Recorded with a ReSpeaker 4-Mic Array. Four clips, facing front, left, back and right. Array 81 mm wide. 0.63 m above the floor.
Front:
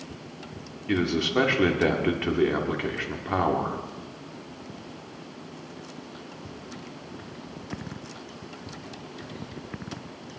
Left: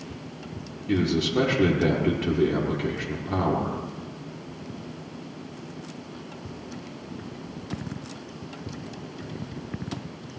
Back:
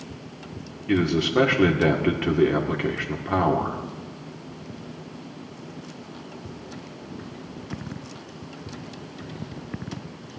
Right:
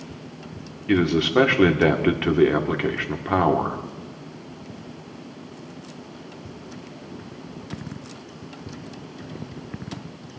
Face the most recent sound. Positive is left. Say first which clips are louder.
# right 4 dB, back 3 dB
turn(degrees=-90)